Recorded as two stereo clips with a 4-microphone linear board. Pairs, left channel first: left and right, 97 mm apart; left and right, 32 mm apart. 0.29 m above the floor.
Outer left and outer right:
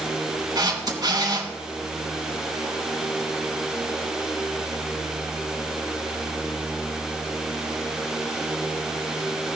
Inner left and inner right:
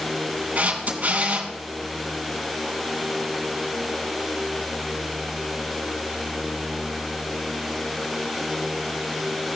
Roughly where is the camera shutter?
Right.